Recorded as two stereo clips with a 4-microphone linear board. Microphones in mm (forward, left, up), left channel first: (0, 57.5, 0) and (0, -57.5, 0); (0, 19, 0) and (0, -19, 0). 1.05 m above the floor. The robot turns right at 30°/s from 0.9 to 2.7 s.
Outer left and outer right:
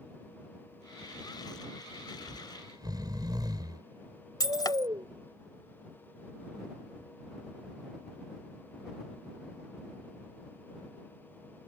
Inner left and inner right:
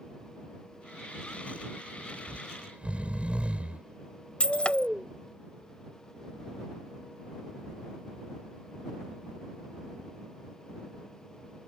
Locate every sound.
2.3 s snoring: 20° right (ahead or behind); by 5.1 s 35° right (ahead or behind)
4.4 s breaking glass: 35° left (ahead or behind)